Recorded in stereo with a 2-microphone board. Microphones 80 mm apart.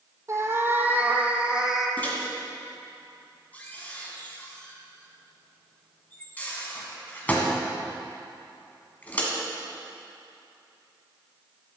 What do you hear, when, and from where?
0.3 s a cat meowing: 40° right (ahead or behind), 1.1 m; by 1.9 s 5° right (ahead or behind), 1.7 m
2.0 s a microwave: 20° left (ahead or behind), 2 m